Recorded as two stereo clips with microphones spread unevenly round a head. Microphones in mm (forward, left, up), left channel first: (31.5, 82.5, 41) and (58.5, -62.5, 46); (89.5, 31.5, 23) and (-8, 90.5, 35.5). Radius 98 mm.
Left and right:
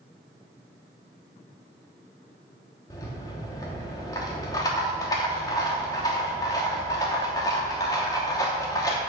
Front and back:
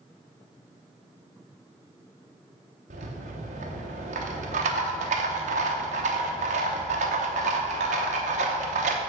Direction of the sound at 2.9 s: 175° left.